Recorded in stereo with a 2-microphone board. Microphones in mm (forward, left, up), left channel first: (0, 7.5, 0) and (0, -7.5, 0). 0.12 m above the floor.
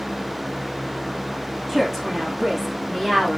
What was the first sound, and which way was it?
A woman speaking, 5° left (ahead or behind).